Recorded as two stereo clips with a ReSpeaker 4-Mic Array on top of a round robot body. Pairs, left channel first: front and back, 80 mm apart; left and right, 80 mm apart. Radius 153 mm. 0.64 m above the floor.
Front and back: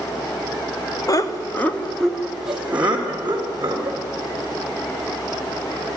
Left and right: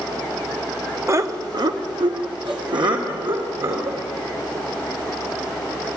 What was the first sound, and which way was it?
Laughter, 35° right.